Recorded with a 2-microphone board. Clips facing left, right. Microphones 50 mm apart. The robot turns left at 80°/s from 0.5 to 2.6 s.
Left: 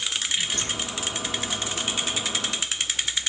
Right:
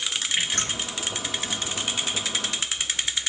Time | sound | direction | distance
0.4 | dripping | 60° right (ahead or behind) | 7.5 m